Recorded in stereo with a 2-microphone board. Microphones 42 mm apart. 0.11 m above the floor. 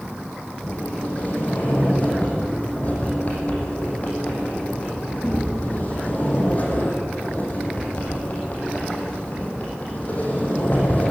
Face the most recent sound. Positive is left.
turn(degrees=40)  # may be behind; listen again after turning